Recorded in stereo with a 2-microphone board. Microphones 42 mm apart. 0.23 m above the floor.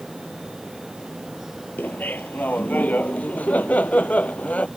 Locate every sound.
1.8 s laughter: 50° left (ahead or behind); by 4.7 s 35° left (ahead or behind)